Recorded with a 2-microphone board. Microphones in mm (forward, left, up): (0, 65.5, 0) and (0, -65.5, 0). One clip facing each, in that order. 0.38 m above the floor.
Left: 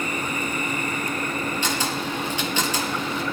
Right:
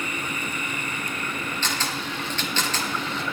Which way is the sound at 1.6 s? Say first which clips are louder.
Left 4 dB; 10° left (ahead or behind).